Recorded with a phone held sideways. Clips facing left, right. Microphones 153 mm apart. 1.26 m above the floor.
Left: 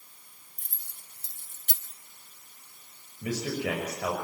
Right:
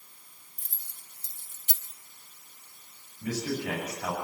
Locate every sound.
0.6 s keys jangling: 60° left (ahead or behind), 3.5 m
3.2 s a man speaking: 85° left, 6 m